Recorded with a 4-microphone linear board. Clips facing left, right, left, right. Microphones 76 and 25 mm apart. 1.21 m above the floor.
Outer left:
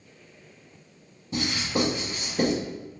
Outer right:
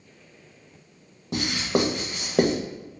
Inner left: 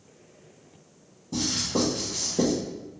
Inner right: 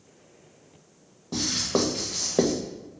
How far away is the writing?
About 1.3 m.